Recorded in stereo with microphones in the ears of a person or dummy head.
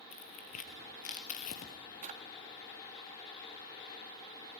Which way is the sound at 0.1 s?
40° left (ahead or behind).